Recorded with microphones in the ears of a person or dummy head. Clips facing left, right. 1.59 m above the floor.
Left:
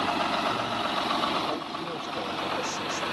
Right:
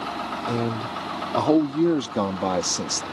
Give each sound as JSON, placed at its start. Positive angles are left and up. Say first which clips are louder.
{"t": 0.5, "sound": "a man speaking", "louder": "right 4 dB", "side_deg": -80}